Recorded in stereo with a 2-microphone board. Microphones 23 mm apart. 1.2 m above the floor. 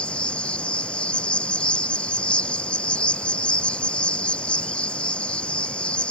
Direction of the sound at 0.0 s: 60° left (ahead or behind).